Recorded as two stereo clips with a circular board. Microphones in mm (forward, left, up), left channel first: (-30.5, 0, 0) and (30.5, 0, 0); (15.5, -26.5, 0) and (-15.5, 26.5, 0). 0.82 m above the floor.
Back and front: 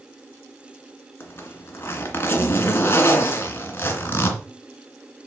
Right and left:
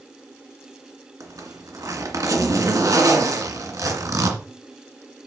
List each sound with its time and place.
1.2 s a zipper: 130° left, 2 m